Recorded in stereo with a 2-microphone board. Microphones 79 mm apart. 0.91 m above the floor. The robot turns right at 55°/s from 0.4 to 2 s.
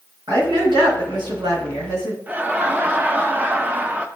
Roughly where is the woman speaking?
Behind right.